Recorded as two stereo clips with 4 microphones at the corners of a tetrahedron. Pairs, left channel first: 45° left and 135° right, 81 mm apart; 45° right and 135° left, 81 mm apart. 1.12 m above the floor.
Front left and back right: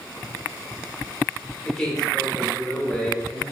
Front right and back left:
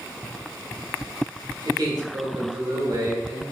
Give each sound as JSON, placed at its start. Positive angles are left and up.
{"t": 1.6, "sound": "a man speaking", "azimuth_deg": 130, "distance_m": 1.2}